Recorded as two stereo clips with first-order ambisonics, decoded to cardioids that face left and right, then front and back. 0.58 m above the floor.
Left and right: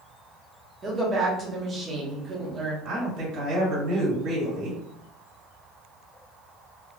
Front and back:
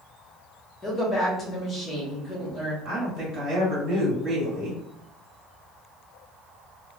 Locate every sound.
0.8 s a woman speaking: 50° right, 1.0 m
2.9 s a woman speaking: 115° right, 1.8 m